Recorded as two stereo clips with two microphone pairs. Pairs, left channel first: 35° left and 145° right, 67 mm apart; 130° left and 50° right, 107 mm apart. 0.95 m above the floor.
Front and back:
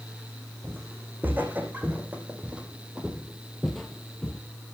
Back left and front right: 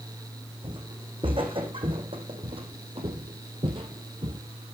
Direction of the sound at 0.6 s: 90° right.